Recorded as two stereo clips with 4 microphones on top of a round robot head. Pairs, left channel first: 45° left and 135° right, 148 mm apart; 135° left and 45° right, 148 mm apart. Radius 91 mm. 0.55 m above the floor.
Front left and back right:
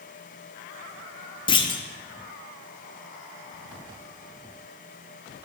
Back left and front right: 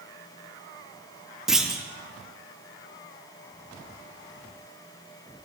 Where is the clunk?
35° left, 0.8 m.